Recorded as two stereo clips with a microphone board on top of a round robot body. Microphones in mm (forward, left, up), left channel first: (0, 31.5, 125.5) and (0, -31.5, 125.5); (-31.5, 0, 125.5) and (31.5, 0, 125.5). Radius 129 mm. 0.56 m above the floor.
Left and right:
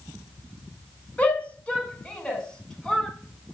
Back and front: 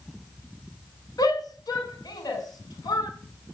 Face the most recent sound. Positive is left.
turn(degrees=170)